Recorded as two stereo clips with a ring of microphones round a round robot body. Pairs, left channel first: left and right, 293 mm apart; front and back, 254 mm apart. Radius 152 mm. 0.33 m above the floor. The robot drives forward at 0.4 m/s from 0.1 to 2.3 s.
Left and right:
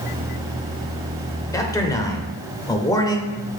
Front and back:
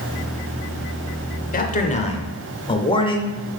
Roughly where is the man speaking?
Ahead.